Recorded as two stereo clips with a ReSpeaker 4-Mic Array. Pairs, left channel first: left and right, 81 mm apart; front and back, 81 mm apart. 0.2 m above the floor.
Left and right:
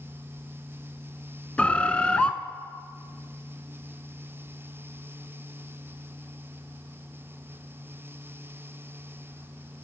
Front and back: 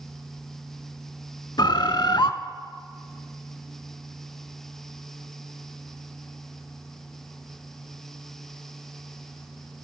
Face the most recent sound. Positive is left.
turn(degrees=15)